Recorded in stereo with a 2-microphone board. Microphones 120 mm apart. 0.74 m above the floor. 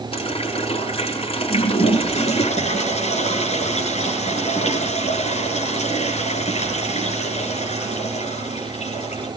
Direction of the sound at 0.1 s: 55° left (ahead or behind).